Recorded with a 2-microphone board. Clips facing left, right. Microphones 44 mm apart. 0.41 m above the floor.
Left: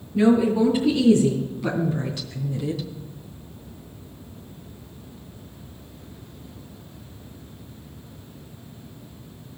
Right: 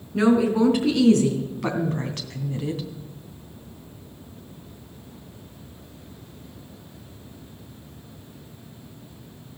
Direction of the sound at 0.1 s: 80° right.